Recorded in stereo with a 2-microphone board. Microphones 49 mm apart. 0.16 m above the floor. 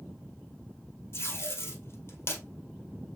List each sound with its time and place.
1.1 s tape being pulled: 60° left (ahead or behind), 2 m